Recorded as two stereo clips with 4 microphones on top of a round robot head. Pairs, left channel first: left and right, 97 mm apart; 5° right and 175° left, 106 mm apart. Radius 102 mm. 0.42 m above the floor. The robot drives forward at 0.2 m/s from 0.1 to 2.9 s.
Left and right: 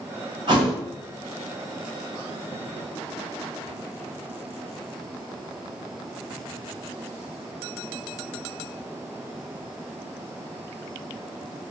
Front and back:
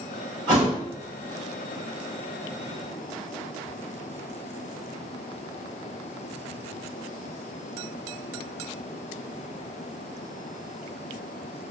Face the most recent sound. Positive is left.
turn(degrees=-140)